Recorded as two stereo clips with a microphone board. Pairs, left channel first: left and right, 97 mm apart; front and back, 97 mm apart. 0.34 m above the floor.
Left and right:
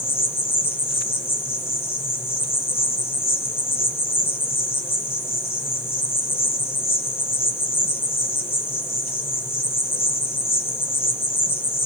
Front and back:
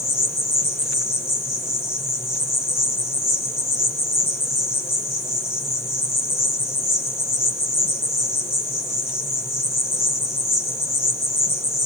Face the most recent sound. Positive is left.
turn(degrees=45)